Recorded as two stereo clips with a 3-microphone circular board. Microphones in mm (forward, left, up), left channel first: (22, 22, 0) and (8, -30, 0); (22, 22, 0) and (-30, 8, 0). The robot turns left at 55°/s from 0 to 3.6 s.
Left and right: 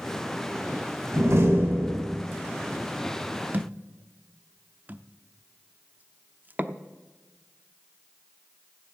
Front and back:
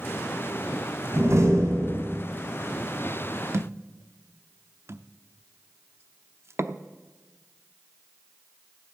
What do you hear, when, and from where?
1.1 s a door slam: 125° right, 4.5 m; by 2.1 s 175° right, 4.5 m
3.5 s a thud: 150° right, 0.7 m; by 6.8 s 155° right, 0.7 m